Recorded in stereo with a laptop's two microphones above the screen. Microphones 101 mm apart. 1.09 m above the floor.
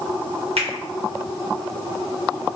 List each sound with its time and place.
0.6 s a finger snap: 80° right, 1.0 m